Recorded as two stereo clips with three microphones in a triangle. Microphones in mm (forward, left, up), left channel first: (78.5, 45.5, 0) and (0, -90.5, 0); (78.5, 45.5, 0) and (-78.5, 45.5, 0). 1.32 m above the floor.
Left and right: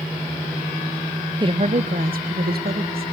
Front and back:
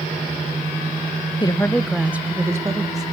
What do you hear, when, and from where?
1.4 s a woman speaking: 55° right, 0.6 m; by 3.0 s 115° right, 1.9 m